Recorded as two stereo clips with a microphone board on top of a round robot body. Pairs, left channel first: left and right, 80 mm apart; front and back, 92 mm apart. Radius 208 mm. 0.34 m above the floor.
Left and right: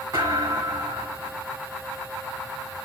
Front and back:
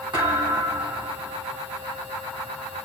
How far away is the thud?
About 6 m.